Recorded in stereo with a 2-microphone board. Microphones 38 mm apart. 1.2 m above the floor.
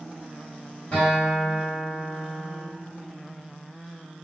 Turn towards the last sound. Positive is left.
turn(degrees=30)  # may be behind; listen again after turning